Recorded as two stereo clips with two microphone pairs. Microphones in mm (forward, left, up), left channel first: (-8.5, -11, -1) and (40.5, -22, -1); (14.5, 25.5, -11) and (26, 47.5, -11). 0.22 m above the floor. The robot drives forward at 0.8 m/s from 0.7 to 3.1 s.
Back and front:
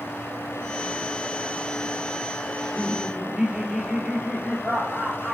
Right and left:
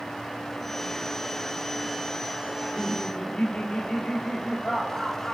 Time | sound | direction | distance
2.5 | laughter | 85° right | 4.5 m